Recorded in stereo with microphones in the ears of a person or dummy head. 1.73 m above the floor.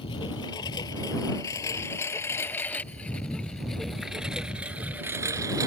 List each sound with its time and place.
0.0 s a lawn mower: 25° left (ahead or behind); by 5.7 s 20° right (ahead or behind)